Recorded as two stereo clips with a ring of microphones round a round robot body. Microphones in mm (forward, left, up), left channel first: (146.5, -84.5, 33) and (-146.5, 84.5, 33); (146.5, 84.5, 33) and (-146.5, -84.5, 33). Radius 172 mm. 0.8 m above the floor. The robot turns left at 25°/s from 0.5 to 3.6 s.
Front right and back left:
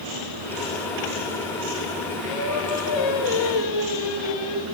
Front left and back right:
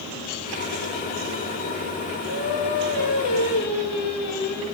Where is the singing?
20° left, 8.5 m; by 4.7 s 15° right, 8.5 m.